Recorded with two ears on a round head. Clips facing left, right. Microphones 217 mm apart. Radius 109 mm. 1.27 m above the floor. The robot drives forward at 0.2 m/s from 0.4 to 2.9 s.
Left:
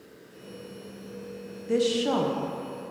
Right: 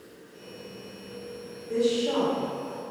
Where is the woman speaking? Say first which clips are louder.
Even; 80° left, 0.6 m; by 2.4 s 75° left (ahead or behind), 0.6 m.